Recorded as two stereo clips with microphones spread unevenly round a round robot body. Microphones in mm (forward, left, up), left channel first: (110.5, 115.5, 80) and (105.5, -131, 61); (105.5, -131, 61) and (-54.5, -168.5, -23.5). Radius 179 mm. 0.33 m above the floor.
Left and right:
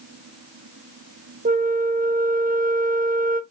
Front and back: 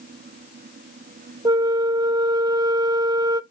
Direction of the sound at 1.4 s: 135° right.